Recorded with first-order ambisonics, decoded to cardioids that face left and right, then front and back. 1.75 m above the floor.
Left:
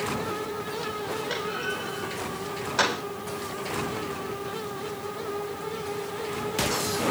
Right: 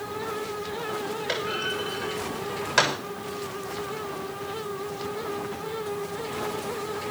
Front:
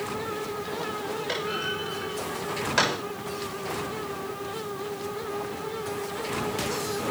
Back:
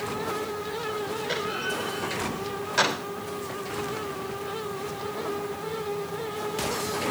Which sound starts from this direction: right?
A clunk, at 1.3 s.